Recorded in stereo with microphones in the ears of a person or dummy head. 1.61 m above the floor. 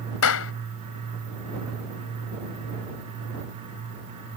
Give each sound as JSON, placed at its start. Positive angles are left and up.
{"t": 0.2, "sound": "a clap", "side_deg": 80}